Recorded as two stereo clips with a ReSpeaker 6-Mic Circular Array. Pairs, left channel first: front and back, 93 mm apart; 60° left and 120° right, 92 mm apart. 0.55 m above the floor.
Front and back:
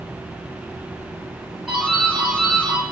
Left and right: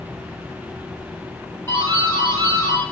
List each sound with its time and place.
1.7 s a doorbell: 100° left, 1.6 m